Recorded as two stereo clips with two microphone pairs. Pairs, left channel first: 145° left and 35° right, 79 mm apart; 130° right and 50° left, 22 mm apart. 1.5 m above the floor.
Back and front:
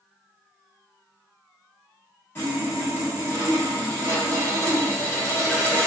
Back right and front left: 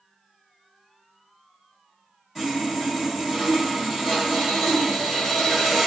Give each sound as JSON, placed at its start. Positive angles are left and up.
{"t": 2.4, "sound": "sawing", "azimuth_deg": 130, "distance_m": 1.3}